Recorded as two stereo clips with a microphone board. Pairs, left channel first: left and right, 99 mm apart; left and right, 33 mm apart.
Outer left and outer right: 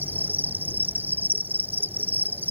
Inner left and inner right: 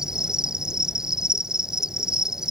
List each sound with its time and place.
0.0 s an insect: 20° right (ahead or behind)